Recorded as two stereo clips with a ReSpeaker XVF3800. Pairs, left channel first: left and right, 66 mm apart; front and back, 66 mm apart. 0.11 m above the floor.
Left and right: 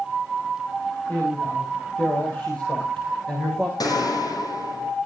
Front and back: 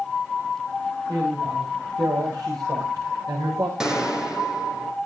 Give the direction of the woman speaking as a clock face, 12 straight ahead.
7 o'clock.